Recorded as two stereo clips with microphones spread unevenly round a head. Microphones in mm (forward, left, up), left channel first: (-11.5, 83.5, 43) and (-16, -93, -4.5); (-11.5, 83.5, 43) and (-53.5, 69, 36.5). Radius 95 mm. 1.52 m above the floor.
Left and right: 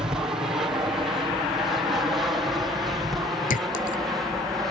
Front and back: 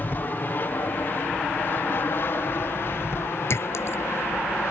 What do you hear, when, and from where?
0.0 s an aircraft: 20° right; by 4.7 s 10° right
3.5 s a clink: 40° left